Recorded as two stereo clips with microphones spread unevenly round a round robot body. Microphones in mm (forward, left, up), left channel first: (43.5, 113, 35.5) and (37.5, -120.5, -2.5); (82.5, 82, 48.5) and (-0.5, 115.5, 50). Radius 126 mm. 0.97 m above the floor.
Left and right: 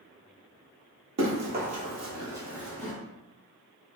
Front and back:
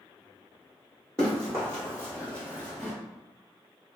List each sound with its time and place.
1.2 s running footsteps: 75° right, 1.2 m; by 2.9 s 55° left, 1.0 m